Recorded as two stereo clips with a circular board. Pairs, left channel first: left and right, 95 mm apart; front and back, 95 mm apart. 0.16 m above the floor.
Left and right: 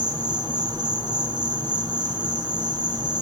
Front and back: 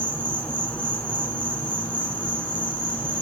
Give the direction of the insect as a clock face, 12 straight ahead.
2 o'clock.